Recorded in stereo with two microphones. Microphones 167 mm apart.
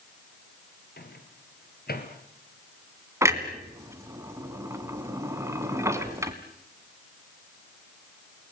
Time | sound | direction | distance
1.0 | a microwave | 70° left (ahead or behind) | 3 m
3.2 | a clunk | 15° right (ahead or behind) | 1.9 m